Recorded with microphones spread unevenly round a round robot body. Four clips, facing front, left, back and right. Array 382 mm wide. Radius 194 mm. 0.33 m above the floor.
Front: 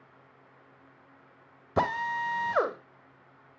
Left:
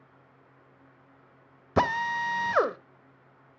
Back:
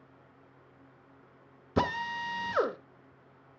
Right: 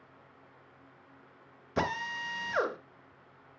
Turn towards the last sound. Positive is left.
turn(degrees=100)